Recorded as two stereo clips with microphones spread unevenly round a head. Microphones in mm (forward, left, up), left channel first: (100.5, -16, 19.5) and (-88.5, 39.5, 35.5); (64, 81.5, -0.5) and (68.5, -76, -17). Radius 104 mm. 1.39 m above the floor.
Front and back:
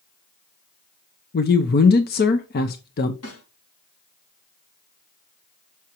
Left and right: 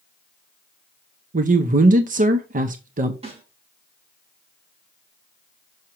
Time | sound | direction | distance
1.3 | a man speaking | 55° right | 0.7 m
3.2 | a snare drum | 35° right | 5 m